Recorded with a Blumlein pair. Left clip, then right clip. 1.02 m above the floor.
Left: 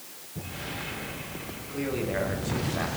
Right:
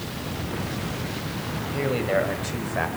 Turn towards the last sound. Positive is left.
turn(degrees=-65)